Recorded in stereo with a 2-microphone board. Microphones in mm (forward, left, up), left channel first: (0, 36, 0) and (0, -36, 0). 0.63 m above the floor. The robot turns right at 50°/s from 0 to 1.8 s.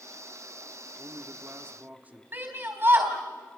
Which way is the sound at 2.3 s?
30° right (ahead or behind).